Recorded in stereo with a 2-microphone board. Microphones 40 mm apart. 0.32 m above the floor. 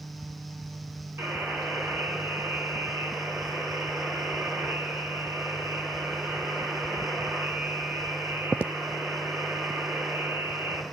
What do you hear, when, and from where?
1.2 s a buzzer: 75° right (ahead or behind), 7.5 m